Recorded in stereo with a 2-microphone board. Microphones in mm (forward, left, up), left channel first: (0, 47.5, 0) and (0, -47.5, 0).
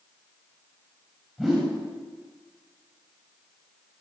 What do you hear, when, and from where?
1.4 s a whoosh: centre (ahead or behind), 9.5 m